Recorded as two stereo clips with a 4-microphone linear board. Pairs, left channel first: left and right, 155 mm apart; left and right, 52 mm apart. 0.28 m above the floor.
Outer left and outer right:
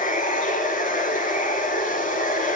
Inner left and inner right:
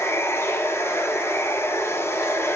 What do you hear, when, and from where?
0.0 s running water: 55° left (ahead or behind), 2.5 m